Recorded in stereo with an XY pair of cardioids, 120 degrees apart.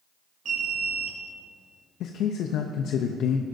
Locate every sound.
0.5 s an alarm: 50° right, 1.9 m
2.0 s a man speaking: 70° left, 0.6 m